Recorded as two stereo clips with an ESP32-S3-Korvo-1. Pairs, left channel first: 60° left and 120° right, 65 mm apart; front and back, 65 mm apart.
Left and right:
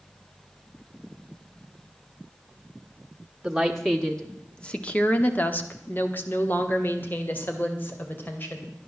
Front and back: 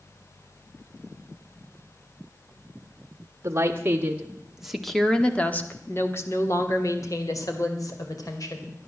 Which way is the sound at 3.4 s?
155° left.